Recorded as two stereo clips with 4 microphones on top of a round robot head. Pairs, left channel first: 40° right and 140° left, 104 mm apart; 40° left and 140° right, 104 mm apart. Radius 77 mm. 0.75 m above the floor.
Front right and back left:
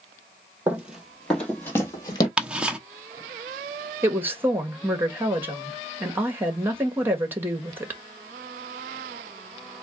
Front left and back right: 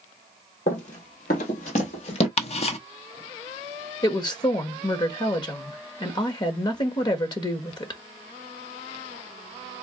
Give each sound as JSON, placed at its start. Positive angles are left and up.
{"t": 0.7, "sound": "running footsteps", "azimuth_deg": 65, "distance_m": 1.5}
{"t": 2.4, "sound": "ticking", "azimuth_deg": 60, "distance_m": 0.9}
{"t": 4.0, "sound": "a woman speaking", "azimuth_deg": 75, "distance_m": 1.5}